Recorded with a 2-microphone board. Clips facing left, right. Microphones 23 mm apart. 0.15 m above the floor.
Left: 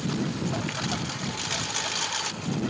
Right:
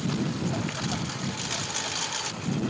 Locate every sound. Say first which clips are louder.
0.0 s a lawn mower: even; 10° left (ahead or behind)